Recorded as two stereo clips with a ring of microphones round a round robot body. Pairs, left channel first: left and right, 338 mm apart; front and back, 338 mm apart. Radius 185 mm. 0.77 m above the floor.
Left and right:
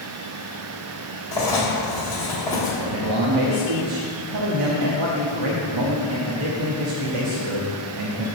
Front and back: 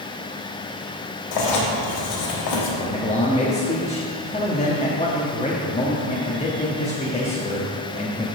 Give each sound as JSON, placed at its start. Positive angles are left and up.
{"t": 1.3, "sound": "writing", "azimuth_deg": 10, "distance_m": 1.3}
{"t": 2.8, "sound": "a man speaking", "azimuth_deg": -70, "distance_m": 1.1}